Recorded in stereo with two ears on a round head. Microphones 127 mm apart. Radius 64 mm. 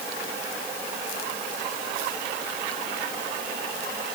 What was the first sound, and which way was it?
Only background noise.